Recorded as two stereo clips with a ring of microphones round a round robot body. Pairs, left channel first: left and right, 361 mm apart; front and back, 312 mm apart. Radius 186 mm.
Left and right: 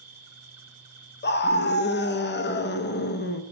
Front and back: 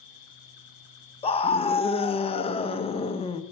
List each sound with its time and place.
0.0 s an insect: 20° right, 1.1 m
1.2 s a scream: 60° left, 0.7 m